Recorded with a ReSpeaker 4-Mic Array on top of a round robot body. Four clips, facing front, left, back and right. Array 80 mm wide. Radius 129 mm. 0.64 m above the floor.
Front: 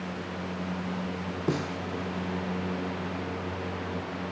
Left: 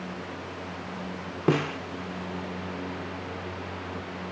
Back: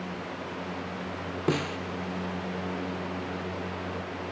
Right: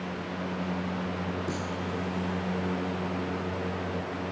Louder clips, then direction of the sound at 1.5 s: Left 8 dB, back 2 dB; 100° left.